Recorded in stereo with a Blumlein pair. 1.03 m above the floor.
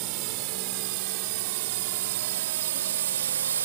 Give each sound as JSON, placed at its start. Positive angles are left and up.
{"t": 0.0, "sound": "a drone", "azimuth_deg": -45}